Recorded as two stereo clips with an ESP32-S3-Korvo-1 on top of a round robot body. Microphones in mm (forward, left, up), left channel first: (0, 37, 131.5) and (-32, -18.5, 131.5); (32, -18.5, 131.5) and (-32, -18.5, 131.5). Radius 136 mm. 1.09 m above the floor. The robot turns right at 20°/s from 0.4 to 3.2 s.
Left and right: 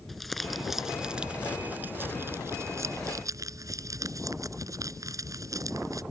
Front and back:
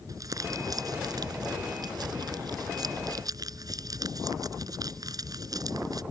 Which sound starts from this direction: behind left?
Crumpling, at 0.1 s.